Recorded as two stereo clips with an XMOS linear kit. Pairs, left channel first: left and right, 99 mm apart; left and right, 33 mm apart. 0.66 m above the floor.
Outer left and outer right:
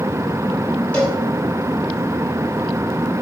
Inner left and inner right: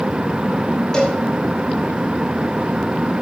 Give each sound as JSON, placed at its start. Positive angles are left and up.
{"t": 0.9, "sound": "a cowbell", "side_deg": 15, "distance_m": 4.5}